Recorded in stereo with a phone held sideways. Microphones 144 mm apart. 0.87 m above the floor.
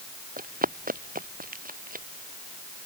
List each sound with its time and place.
0.4 s running footsteps: 85° right